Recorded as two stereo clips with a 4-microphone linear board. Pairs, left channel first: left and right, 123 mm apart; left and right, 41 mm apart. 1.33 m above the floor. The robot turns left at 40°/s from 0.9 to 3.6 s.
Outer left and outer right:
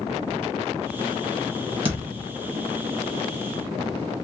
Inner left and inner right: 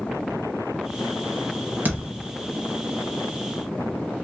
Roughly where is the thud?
Right.